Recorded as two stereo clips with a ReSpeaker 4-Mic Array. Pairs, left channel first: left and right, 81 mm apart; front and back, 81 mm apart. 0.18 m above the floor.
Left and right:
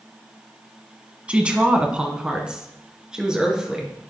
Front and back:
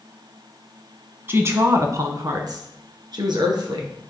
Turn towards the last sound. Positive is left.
turn(degrees=-170)